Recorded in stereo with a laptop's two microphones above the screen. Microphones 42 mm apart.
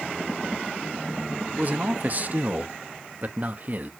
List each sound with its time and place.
1.5 s a man speaking: 40° right (ahead or behind), 0.9 m